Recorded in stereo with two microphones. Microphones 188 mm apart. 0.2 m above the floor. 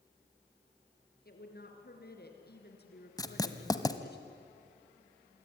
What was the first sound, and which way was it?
A woman speaking, 55° left (ahead or behind).